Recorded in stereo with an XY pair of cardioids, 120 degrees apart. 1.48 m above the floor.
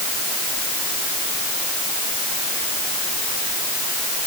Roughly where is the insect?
No insect in this recording.